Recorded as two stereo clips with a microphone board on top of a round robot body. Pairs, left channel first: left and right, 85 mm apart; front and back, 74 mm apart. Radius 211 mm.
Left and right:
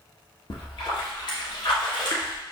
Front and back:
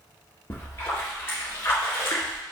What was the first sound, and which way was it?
A splash, 60° left.